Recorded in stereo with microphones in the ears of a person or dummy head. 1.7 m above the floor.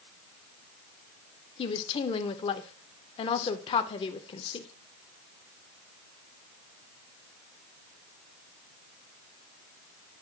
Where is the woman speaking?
30° left (ahead or behind), 0.5 m.